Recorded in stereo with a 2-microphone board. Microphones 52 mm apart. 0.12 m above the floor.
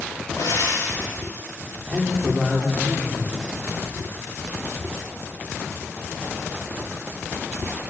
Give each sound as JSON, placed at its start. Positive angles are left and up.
{"t": 0.4, "sound": "frying", "side_deg": 85, "distance_m": 8.5}
{"t": 1.9, "sound": "a man speaking", "side_deg": -5, "distance_m": 8.0}